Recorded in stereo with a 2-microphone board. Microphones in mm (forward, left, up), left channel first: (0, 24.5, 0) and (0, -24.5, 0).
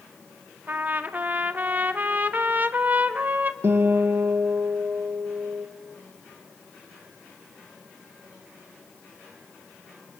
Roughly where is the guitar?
Right.